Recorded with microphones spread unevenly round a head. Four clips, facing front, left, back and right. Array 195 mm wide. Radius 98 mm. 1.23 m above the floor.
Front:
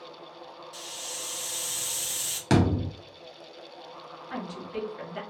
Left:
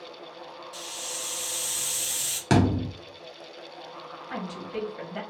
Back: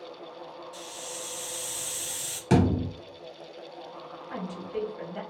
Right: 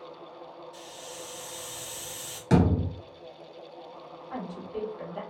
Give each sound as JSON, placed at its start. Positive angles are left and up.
{"t": 0.7, "sound": "a hiss", "azimuth_deg": 70, "distance_m": 2.0}
{"t": 2.5, "sound": "a thud", "azimuth_deg": 45, "distance_m": 1.5}
{"t": 4.3, "sound": "a woman speaking", "azimuth_deg": 75, "distance_m": 1.4}